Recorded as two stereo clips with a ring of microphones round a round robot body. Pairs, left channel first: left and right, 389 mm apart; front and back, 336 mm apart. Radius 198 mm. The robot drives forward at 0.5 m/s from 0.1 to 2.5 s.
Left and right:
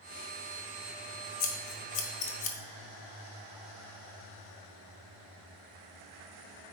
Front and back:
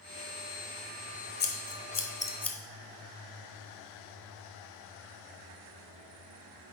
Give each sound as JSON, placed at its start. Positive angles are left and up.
{"t": 1.4, "sound": "scissors", "azimuth_deg": 60, "distance_m": 1.3}